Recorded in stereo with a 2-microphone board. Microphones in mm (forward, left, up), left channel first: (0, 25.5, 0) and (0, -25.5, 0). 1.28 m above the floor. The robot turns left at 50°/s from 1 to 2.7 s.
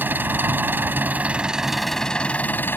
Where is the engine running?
140° right; by 2.8 s 135° left.